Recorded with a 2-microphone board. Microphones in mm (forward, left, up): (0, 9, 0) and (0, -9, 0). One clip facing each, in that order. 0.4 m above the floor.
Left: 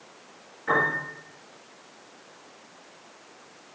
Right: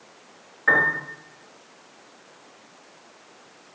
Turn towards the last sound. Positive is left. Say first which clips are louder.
# right 5 dB
turn(degrees=-60)  # may be behind; listen again after turning